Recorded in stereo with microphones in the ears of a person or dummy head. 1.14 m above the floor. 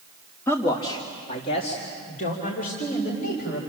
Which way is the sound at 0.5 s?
15° left (ahead or behind).